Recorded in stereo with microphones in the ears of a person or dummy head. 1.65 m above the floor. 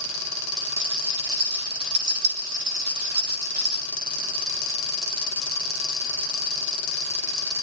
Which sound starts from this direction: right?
A rattle, at 0.8 s.